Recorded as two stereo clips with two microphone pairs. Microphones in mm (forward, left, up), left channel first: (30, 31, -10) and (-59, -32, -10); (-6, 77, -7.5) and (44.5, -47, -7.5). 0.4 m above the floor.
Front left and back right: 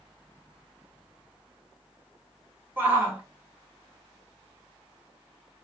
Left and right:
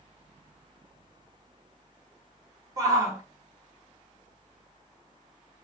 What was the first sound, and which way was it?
A shout, 100° right.